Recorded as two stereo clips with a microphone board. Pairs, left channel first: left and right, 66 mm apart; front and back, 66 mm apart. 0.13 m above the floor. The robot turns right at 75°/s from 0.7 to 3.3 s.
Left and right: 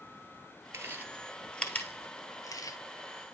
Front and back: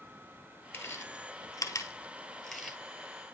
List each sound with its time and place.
0.7 s chewing: 45° right, 1.2 m; by 2.8 s 105° left, 1.2 m